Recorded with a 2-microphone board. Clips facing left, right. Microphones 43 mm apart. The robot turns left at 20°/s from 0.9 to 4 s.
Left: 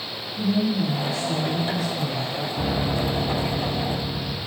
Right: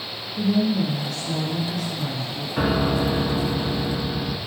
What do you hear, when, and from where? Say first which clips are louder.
0.4 s a woman speaking: right 2 dB; 65° right, 3.5 m; by 2.5 s 95° right, 3.5 m
2.6 s a piano: right 5 dB; 85° right, 1.0 m; by 4.4 s 65° right (ahead or behind), 1.0 m